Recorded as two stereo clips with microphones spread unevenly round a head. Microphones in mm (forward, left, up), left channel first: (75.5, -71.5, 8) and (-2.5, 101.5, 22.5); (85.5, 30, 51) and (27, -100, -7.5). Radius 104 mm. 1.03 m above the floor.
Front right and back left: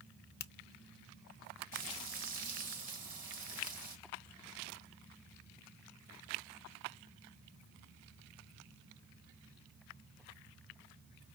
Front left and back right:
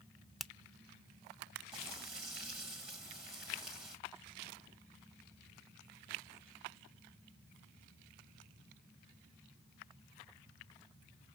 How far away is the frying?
About 1.8 m.